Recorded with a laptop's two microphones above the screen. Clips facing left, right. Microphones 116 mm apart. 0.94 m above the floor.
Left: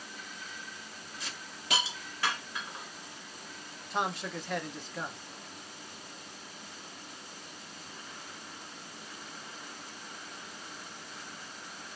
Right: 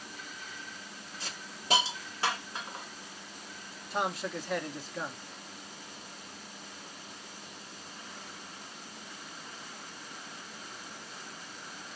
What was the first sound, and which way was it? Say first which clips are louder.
A hiss: right 1 dB; 30° right (ahead or behind).